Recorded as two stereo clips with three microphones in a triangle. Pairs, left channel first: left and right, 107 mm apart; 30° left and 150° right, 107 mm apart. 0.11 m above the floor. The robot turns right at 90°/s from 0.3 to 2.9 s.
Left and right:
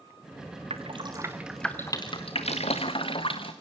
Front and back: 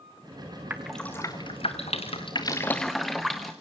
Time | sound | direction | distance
0.7 | dripping | 80° right | 2.5 m